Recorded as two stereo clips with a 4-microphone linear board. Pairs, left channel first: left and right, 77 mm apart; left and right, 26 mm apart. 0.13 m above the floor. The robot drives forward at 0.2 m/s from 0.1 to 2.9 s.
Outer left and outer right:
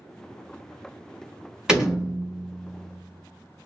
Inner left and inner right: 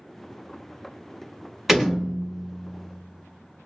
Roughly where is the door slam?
Centre.